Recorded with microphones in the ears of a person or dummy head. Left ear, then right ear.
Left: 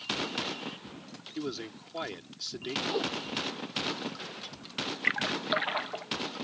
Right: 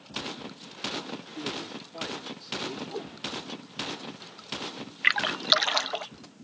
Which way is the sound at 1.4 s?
35° left (ahead or behind).